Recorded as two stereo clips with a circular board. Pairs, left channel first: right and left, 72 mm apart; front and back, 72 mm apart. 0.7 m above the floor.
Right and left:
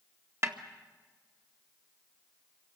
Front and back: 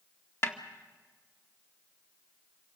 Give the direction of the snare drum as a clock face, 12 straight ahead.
11 o'clock.